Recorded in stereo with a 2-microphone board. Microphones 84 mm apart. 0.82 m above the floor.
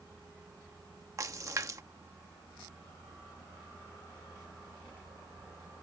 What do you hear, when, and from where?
1.2 s a splash: 40° right (ahead or behind)